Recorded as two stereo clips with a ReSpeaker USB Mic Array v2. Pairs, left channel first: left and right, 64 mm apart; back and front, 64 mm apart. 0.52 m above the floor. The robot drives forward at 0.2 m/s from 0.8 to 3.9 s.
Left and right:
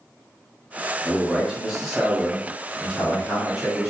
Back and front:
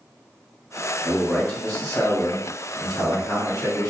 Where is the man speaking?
145° right, 0.7 m; by 3.9 s 170° right, 1.0 m.